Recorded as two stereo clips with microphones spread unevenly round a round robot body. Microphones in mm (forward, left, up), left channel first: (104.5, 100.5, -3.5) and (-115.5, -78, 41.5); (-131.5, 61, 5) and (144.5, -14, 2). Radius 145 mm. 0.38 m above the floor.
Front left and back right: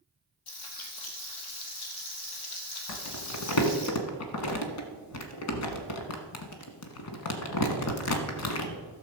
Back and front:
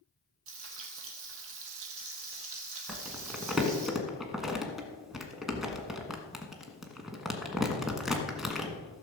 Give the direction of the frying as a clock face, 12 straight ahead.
11 o'clock.